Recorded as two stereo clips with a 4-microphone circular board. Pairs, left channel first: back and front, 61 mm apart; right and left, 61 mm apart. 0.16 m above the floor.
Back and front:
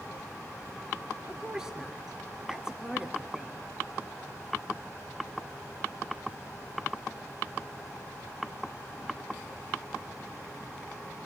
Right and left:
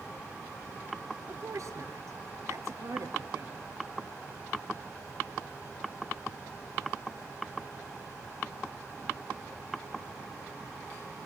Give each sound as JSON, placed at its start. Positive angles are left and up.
{"t": 1.3, "sound": "a woman speaking", "azimuth_deg": 80, "distance_m": 3.0}